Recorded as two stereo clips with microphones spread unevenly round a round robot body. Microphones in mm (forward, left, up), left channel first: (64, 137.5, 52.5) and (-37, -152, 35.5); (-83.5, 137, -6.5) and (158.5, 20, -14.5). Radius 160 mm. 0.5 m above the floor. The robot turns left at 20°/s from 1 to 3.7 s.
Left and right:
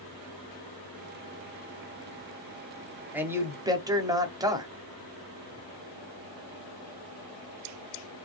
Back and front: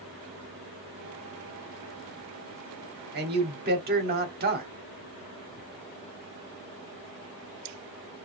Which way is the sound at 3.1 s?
30° right.